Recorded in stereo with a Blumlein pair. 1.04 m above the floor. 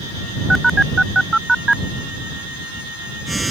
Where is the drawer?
No drawer in this recording.